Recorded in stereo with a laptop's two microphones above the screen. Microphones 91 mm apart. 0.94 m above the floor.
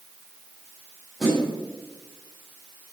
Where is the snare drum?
Centre (ahead or behind), 7.5 m.